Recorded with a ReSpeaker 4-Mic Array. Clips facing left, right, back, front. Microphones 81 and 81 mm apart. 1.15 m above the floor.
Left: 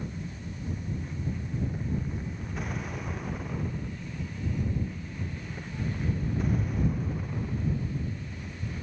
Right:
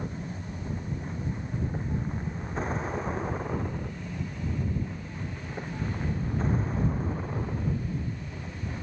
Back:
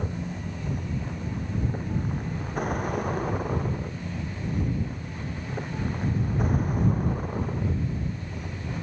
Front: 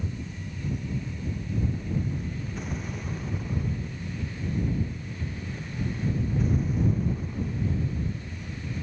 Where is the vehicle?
150° right.